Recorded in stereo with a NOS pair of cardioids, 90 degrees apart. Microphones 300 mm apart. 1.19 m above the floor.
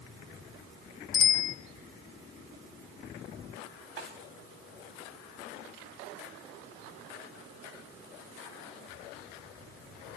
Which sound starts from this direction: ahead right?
A snare drum, at 4.0 s.